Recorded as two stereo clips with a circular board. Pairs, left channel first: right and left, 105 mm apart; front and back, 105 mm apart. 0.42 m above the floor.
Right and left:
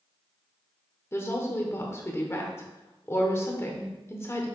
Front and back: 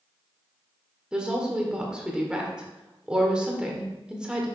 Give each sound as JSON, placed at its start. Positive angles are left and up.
{"t": 1.1, "sound": "a woman speaking", "azimuth_deg": -110, "distance_m": 1.1}